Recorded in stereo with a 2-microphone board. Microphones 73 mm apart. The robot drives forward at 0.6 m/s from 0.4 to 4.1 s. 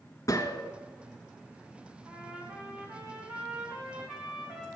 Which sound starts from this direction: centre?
A trumpet, at 2.0 s.